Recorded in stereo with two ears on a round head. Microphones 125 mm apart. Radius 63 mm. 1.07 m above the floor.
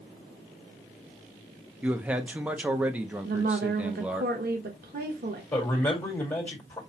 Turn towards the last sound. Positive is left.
turn(degrees=15)  # may be behind; listen again after turning